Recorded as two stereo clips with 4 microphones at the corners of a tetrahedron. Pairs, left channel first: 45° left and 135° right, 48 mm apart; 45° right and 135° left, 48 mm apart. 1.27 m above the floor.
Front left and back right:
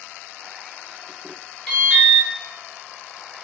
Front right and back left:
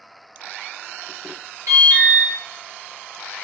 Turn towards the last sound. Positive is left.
turn(degrees=115)